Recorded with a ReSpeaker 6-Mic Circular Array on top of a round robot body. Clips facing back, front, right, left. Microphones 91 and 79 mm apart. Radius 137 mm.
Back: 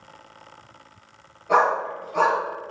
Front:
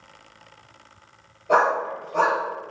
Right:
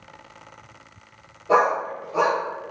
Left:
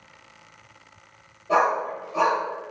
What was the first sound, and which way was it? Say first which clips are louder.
A dog barking: even, right 2 dB; 95° right.